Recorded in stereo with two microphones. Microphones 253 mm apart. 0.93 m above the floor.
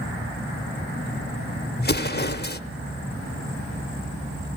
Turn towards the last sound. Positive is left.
turn(degrees=40)  # may be behind; listen again after turning